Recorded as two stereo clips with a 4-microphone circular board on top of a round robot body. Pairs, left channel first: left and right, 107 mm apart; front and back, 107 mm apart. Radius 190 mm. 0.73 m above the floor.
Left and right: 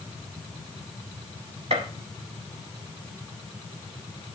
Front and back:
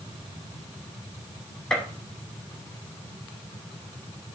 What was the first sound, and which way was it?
A gunshot, 85° right.